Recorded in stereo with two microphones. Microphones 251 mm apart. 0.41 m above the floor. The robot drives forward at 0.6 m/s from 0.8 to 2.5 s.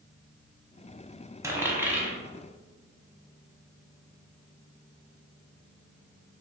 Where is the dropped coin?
10° right (ahead or behind), 0.6 m; by 2.1 s 5° right (ahead or behind), 1.1 m.